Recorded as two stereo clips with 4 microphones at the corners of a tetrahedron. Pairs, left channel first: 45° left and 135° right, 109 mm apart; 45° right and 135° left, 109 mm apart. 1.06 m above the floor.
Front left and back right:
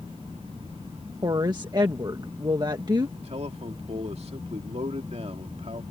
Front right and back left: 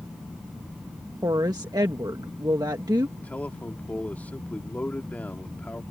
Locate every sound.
1.2 s a woman speaking: 175° right
3.2 s a man speaking: 120° right